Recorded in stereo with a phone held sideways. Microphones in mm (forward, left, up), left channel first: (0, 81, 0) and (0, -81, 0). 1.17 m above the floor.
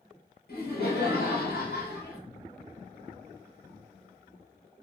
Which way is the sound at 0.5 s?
75° left (ahead or behind).